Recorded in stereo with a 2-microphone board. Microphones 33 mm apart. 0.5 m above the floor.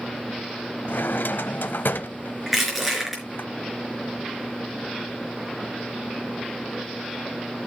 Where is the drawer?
80° left, 0.7 m.